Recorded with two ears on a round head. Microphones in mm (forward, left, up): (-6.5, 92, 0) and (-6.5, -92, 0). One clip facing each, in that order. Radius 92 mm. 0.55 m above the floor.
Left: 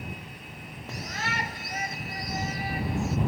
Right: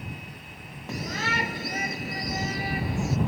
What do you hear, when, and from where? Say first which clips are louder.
0.9 s a shout: right 5 dB; 70° right (ahead or behind); by 3.2 s 60° right (ahead or behind)